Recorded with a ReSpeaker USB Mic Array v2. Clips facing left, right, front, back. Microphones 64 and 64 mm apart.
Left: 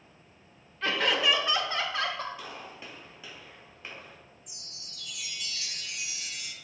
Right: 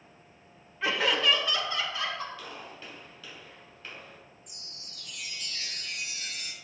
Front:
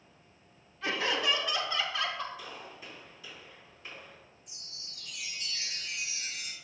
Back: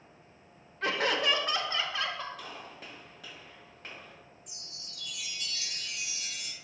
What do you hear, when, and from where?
0.8 s laughter: 165° right, 1.4 m; by 2.3 s 105° left, 1.6 m
2.4 s a gunshot: 160° left, 3 m
4.5 s a chime: 55° right, 1.0 m